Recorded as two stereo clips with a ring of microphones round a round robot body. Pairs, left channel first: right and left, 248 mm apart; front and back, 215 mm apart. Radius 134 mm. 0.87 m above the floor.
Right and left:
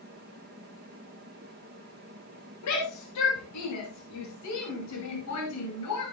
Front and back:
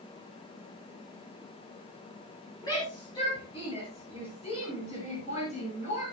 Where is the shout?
75° right, 9 m; by 6.0 s 65° right, 10.5 m.